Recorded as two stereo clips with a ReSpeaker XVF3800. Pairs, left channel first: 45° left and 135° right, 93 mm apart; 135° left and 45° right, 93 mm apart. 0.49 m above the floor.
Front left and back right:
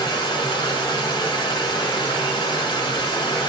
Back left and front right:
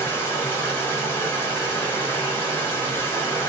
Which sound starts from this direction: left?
Running water, at 0.0 s.